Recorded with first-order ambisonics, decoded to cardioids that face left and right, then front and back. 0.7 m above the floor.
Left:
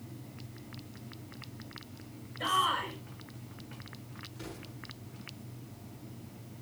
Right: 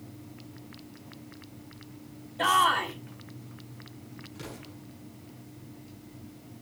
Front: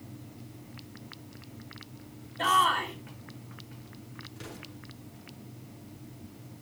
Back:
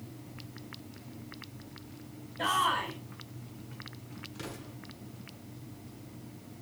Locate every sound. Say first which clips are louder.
2.4 s a shout: right 6 dB, front 4 dB; 85° right, 4 m
4.3 s an explosion: right 4 dB, back 3 dB; 150° right, 6.5 m